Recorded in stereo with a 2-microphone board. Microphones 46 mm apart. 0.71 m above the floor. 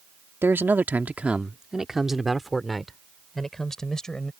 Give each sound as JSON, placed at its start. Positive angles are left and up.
{"t": 0.4, "sound": "a man speaking", "side_deg": -55}